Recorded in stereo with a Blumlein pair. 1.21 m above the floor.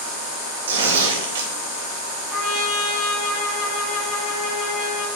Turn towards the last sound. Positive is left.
turn(degrees=10)